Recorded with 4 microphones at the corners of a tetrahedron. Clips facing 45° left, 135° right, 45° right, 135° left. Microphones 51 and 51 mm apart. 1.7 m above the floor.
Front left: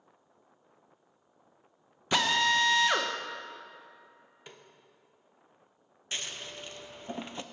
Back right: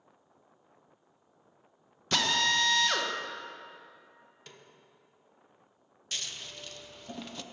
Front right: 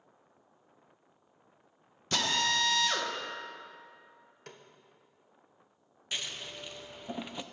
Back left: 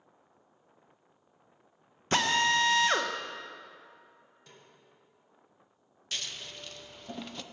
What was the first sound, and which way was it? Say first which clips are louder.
A drill: front left 2 dB, back left 4 dB; 110° left.